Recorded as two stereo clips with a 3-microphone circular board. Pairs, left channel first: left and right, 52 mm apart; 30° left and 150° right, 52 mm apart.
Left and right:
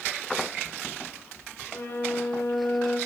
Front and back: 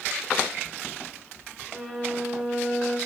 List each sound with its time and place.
1.7 s a violin: 120° left, 6 m